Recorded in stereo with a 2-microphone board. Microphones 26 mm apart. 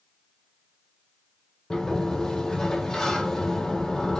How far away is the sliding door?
About 1.7 m.